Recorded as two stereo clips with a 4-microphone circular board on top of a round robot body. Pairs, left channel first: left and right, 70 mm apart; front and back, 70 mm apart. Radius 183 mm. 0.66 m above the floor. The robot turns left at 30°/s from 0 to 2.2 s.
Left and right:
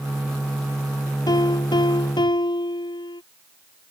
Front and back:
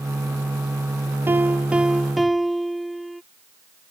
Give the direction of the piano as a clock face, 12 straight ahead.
8 o'clock.